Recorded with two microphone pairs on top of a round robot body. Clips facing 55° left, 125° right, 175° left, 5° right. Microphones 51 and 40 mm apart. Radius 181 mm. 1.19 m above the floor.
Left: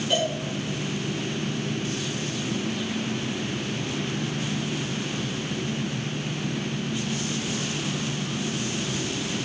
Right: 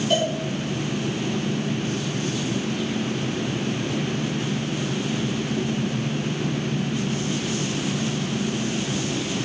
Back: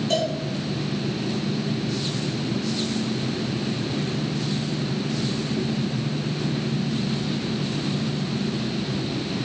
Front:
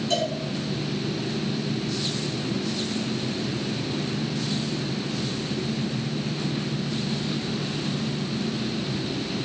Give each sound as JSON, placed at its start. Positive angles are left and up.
{"t": 0.1, "sound": "a cowbell", "azimuth_deg": 145, "distance_m": 5.5}